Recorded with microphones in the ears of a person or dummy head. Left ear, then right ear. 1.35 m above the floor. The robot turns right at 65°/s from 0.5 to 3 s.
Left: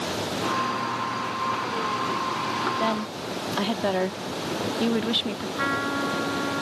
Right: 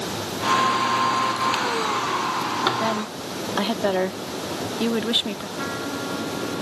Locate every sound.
2.8 s a woman speaking: 5° left (ahead or behind); by 5.5 s 10° right (ahead or behind)
5.6 s a trumpet: 30° left (ahead or behind)